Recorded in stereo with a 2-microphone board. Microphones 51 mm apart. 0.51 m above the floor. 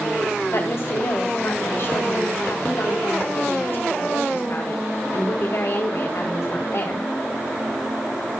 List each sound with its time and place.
0.5 s a woman speaking: 55° left (ahead or behind), 2.5 m